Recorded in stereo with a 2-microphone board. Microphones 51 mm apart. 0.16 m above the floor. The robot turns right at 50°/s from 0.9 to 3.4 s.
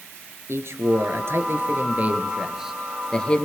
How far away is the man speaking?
About 2.5 m.